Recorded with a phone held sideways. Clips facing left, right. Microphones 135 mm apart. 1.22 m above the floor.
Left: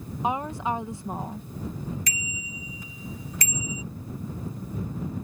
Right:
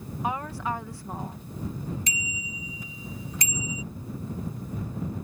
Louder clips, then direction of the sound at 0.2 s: Left 3 dB; 20° left (ahead or behind).